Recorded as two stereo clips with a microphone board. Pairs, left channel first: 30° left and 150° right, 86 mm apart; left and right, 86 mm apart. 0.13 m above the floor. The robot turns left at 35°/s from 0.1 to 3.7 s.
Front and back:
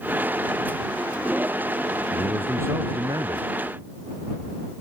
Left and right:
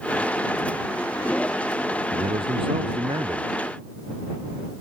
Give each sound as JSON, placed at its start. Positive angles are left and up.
{"t": 2.1, "sound": "a man speaking", "azimuth_deg": -75}